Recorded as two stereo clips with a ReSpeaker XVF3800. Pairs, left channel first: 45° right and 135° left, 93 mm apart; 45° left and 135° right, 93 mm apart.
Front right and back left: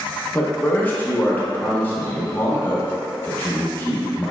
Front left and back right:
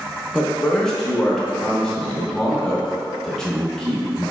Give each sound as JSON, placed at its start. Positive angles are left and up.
{"t": 0.3, "sound": "a man speaking", "azimuth_deg": -25, "distance_m": 0.7}